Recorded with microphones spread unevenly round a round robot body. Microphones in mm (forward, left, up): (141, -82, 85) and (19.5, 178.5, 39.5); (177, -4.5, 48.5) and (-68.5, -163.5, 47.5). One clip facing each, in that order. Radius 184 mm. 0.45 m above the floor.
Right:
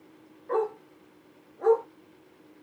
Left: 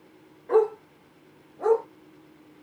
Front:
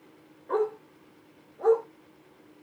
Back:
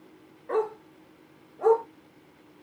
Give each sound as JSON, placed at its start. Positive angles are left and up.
{"t": 0.5, "sound": "a dog barking", "azimuth_deg": 160, "distance_m": 4.0}